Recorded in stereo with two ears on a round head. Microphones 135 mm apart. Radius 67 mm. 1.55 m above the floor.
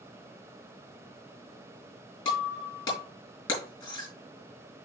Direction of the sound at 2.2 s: 30° left (ahead or behind).